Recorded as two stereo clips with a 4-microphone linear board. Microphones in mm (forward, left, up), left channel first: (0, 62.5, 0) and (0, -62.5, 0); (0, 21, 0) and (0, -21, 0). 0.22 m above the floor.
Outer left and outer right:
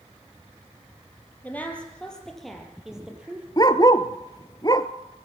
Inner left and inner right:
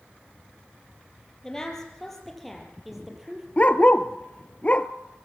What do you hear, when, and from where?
1.4 s a woman speaking: 15° left (ahead or behind), 5.5 m; by 3.5 s 10° right (ahead or behind), 5.5 m
3.6 s a dog barking: 35° left (ahead or behind), 0.9 m